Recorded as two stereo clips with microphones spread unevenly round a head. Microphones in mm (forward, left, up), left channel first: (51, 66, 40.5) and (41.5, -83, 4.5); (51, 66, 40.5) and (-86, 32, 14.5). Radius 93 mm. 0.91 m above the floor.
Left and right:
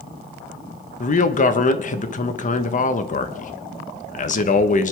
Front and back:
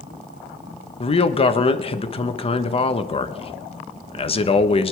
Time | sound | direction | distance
1.0 | a man speaking | 60° left | 1.2 m